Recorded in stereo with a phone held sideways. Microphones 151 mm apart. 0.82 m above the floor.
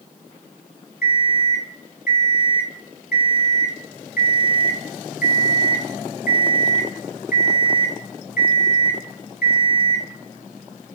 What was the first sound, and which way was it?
An alarm clock, 85° left.